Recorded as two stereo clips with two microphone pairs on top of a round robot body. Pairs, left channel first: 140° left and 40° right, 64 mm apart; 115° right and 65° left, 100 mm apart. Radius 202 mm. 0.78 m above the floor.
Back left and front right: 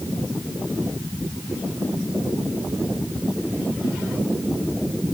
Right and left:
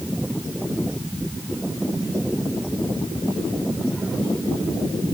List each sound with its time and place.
Only background noise.